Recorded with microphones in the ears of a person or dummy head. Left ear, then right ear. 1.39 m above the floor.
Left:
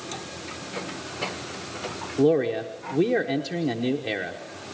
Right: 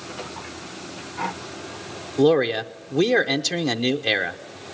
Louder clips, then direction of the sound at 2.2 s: Right 3 dB; 40° right (ahead or behind).